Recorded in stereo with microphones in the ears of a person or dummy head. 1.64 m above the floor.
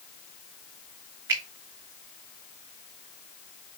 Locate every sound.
1.3 s a finger snap: 25° right (ahead or behind), 3 m